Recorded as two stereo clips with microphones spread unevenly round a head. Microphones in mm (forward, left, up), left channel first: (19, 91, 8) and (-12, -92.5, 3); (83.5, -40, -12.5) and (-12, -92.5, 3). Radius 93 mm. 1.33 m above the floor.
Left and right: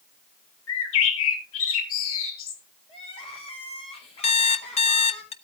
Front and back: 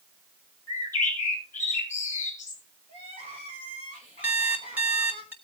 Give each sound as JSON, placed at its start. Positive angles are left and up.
{"t": 0.7, "sound": "a bird", "azimuth_deg": 105, "distance_m": 3.5}
{"t": 2.9, "sound": "crying", "azimuth_deg": 145, "distance_m": 6.5}
{"t": 4.2, "sound": "an alarm clock", "azimuth_deg": 135, "distance_m": 1.0}